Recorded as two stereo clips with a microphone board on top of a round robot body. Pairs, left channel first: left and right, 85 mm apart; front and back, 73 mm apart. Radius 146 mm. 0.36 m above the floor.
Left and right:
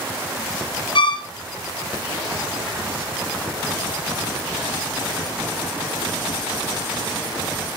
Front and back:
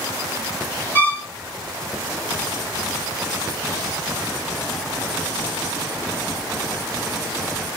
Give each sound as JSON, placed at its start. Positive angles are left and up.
{"t": 0.9, "sound": "a violin", "azimuth_deg": 70, "distance_m": 2.0}